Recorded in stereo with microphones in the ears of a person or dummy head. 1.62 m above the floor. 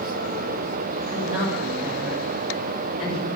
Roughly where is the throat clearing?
No throat clearing in this recording.